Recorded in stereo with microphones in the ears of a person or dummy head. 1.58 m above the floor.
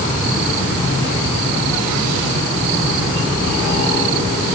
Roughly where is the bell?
No bell in this recording.